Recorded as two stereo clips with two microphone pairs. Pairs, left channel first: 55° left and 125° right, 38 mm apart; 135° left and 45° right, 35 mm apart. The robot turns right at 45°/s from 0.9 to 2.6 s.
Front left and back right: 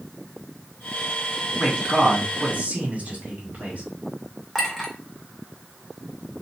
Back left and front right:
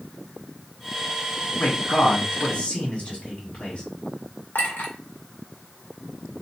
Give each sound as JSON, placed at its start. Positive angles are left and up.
{"t": 1.6, "sound": "a man speaking", "azimuth_deg": 145, "distance_m": 2.0}
{"t": 4.5, "sound": "a clink", "azimuth_deg": 145, "distance_m": 1.0}